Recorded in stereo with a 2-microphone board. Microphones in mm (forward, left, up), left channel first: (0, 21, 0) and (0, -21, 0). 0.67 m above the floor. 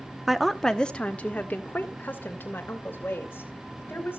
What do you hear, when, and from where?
0.3 s a woman speaking: 10° right (ahead or behind), 0.7 m; by 4.2 s 55° left (ahead or behind), 3.5 m